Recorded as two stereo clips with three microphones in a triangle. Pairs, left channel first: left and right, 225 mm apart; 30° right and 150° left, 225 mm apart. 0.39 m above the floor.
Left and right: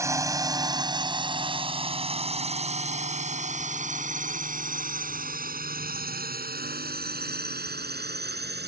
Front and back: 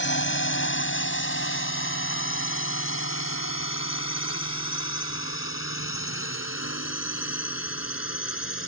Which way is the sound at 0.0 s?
15° right.